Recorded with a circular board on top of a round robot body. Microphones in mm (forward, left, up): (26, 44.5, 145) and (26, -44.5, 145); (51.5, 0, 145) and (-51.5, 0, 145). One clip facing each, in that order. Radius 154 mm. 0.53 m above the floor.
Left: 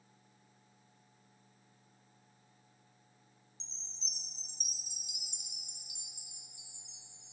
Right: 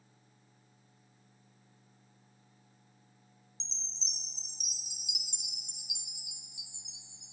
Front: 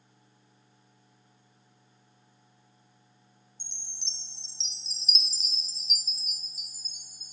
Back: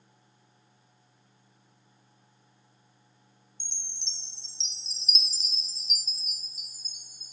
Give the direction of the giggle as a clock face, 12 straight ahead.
No giggle in this recording.